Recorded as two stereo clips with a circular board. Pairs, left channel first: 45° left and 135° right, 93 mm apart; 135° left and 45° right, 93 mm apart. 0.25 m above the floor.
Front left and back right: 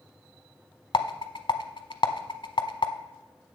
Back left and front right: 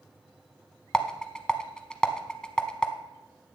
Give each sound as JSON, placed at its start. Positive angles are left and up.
{"t": 0.9, "sound": "a rattle", "azimuth_deg": 55, "distance_m": 0.7}